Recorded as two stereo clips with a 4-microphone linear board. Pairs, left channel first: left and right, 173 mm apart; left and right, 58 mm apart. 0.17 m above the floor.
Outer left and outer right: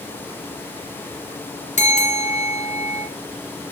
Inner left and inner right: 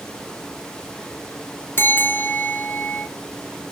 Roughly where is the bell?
Left.